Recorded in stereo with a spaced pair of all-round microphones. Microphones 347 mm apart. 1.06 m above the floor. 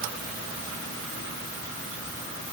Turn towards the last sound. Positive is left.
No sound to turn to.